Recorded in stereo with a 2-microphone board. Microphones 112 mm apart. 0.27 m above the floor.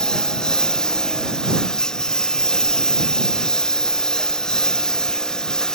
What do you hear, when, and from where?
0.0 s a lawn mower: 5° left (ahead or behind)